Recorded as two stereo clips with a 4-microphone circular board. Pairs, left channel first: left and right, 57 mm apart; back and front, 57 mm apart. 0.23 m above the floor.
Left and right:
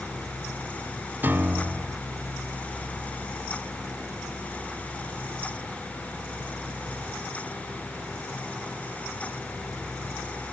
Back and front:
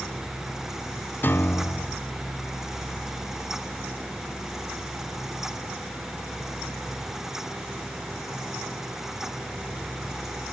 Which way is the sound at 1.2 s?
135° right.